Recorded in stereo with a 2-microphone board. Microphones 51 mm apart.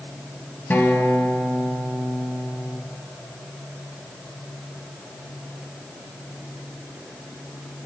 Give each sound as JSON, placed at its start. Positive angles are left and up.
{"t": 0.7, "sound": "a guitar", "side_deg": 40, "distance_m": 3.5}